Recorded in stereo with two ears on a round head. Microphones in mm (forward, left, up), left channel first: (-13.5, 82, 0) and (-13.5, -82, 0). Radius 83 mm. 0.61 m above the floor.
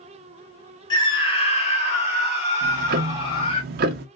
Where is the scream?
25° left (ahead or behind), 1.3 m; by 3.6 s 30° left (ahead or behind), 2 m.